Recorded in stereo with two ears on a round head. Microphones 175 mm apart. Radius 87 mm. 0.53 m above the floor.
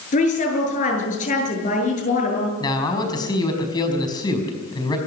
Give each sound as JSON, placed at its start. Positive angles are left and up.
{"t": 0.1, "sound": "a woman speaking", "side_deg": 40, "distance_m": 8.0}
{"t": 2.6, "sound": "a man speaking", "side_deg": 20, "distance_m": 5.0}